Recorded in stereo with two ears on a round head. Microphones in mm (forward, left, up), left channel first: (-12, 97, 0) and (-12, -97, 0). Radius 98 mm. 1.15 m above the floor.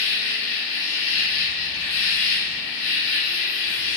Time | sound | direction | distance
0.0 | an insect | 55° left (ahead or behind) | 1.5 m